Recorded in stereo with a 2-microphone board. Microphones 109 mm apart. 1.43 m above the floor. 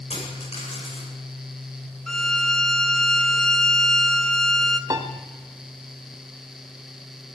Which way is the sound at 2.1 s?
5° left (ahead or behind).